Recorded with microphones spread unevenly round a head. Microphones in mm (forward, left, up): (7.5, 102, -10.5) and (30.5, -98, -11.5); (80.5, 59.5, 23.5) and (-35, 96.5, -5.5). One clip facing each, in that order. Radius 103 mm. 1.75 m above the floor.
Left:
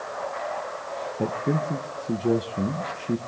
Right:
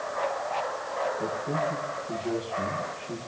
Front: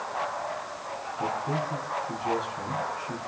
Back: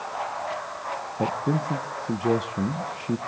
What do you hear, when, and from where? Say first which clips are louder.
1.2 s a man speaking: left 4 dB, back 4 dB; 135° left, 1.6 m